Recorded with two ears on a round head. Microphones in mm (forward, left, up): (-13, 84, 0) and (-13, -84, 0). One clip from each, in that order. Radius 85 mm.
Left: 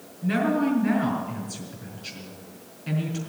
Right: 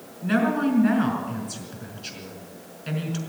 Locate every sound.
0.2 s a woman speaking: 35° right (ahead or behind), 5 m